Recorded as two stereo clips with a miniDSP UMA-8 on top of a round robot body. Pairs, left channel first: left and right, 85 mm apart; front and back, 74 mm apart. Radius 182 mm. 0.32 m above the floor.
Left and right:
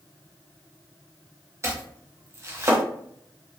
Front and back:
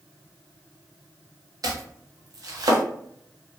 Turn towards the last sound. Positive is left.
turn(degrees=-150)